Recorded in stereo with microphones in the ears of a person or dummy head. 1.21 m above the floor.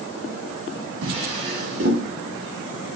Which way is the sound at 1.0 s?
60° right (ahead or behind).